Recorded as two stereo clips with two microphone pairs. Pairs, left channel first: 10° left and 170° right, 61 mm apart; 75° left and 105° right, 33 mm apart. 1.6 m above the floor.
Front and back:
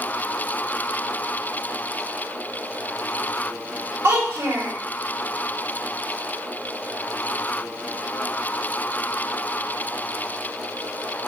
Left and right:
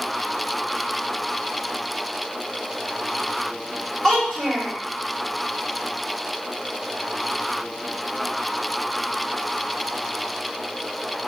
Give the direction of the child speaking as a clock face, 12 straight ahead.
7 o'clock.